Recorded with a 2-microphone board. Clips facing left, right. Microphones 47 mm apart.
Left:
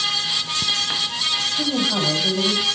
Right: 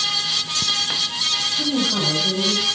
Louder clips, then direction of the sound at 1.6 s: Even; 55° left (ahead or behind).